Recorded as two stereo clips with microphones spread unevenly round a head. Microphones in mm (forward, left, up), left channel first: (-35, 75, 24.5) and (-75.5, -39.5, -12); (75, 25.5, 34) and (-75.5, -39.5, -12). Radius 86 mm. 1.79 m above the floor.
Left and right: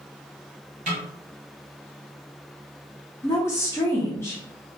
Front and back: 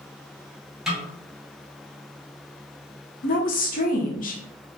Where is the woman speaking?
10° left, 0.8 m.